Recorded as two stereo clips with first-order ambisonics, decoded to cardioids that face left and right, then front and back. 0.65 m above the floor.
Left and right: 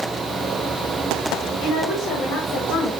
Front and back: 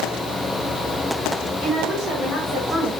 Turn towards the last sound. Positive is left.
turn(degrees=130)